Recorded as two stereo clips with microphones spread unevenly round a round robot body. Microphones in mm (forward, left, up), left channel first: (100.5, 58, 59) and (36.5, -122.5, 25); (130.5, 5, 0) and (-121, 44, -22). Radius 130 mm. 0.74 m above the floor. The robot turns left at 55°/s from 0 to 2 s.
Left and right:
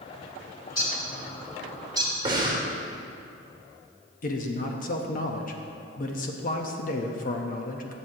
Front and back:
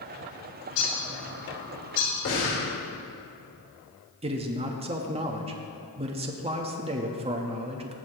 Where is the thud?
I don't hear a thud.